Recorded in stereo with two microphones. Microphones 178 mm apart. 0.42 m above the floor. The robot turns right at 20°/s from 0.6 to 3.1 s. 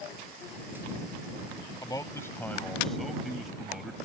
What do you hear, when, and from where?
1.8 s a man speaking: 20° left (ahead or behind); by 4.0 s centre (ahead or behind)